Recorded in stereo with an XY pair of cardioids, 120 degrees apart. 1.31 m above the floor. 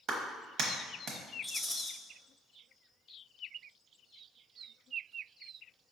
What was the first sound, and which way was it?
A clap, 65° right.